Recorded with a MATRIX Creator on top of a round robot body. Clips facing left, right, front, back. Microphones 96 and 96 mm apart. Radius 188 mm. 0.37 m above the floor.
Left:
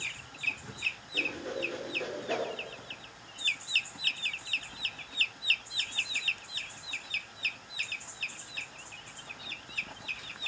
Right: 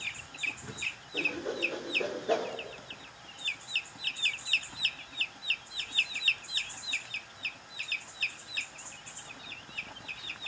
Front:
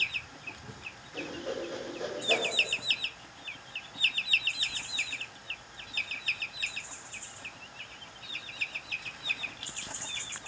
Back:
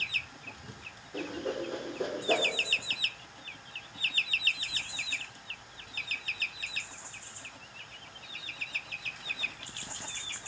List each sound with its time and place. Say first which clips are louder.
1.1 s a whoosh: right 2 dB, back 2 dB; 150° right, 1.9 m